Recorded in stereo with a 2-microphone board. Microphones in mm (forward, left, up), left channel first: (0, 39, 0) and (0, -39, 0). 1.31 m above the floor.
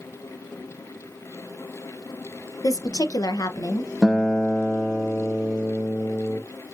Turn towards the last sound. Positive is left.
turn(degrees=5)  # may be behind; listen again after turning